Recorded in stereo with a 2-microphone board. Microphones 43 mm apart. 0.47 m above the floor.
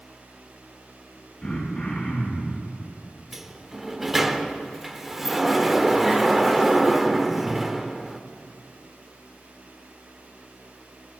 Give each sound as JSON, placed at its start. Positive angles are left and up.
{"t": 1.4, "sound": "throat clearing", "side_deg": 20, "distance_m": 5.5}
{"t": 3.3, "sound": "a sliding door", "side_deg": -5, "distance_m": 0.6}